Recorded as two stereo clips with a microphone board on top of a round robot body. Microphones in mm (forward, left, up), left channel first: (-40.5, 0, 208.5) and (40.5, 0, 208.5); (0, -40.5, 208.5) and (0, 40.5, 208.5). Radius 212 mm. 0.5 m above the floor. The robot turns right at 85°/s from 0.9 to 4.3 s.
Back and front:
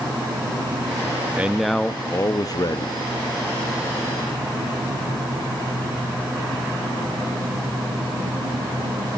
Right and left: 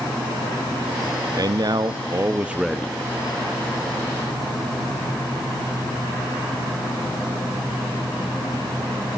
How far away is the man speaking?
About 0.8 m.